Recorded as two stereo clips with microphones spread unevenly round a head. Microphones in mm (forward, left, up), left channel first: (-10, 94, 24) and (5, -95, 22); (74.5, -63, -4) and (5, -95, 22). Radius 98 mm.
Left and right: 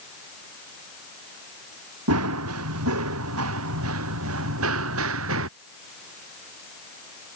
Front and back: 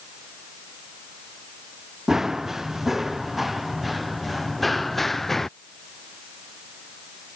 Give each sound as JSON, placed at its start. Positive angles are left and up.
{"t": 2.1, "sound": "running footsteps", "azimuth_deg": -75}